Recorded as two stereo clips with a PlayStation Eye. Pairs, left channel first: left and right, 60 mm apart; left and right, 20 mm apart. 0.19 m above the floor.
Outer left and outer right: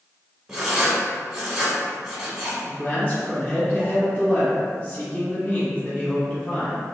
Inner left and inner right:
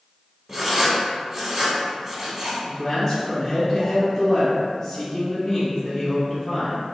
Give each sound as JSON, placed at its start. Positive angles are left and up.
{"t": 0.5, "sound": "writing", "side_deg": -5, "distance_m": 1.0}
{"t": 2.6, "sound": "a man speaking", "side_deg": 25, "distance_m": 1.1}